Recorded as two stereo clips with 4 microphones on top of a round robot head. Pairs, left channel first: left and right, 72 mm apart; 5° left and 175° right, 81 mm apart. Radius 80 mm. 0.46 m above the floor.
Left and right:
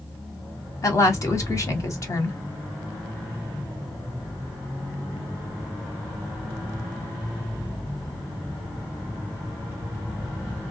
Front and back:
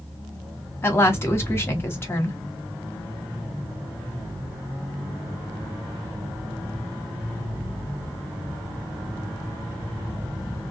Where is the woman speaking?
60° left, 1.4 m.